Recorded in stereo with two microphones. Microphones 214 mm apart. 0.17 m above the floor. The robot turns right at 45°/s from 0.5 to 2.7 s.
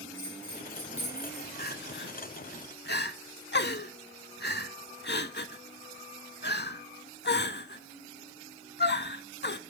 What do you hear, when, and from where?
0.1 s a bell: 10° left, 2.5 m; by 1.5 s 55° left, 2.5 m
1.6 s crying: 45° left (ahead or behind), 0.5 m; by 9.6 s 55° left (ahead or behind), 0.5 m